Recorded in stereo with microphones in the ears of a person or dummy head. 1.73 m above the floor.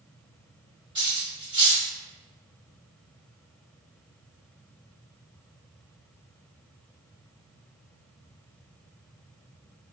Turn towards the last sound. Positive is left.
turn(degrees=-25)  # may be behind; listen again after turning